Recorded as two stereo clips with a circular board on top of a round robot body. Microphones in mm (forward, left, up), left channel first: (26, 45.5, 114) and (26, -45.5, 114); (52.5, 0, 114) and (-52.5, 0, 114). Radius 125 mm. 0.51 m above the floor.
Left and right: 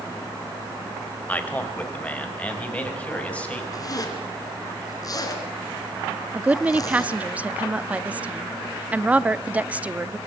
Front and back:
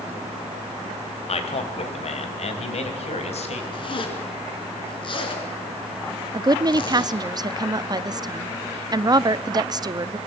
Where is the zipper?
40° left, 3 m.